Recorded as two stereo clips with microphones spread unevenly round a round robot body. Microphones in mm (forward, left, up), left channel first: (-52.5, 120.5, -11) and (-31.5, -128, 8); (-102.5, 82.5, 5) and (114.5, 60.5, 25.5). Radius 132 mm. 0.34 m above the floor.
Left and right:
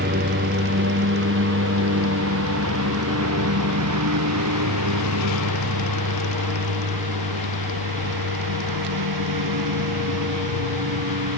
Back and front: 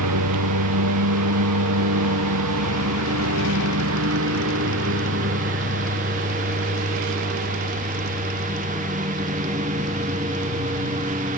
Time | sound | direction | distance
0.0 | a lawn mower | 25° right | ?